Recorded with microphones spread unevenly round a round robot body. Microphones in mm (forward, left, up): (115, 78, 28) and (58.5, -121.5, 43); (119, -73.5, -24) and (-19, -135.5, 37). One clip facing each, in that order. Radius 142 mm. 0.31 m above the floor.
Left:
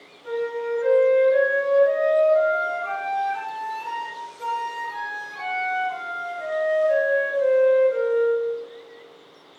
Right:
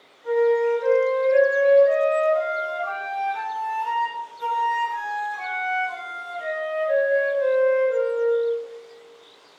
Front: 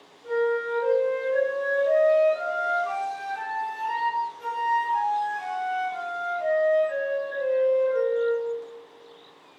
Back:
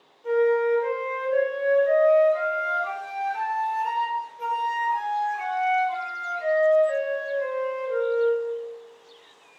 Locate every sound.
0.2 s a flute: 140° left, 1.4 m